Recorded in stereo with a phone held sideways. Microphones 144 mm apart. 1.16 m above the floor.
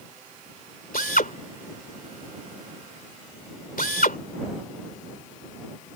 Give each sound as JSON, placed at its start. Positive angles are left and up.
{"t": 0.9, "sound": "a drill", "side_deg": 80}